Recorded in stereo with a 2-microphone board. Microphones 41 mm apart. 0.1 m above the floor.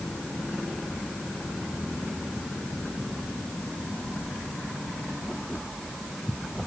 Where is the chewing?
I don't hear chewing.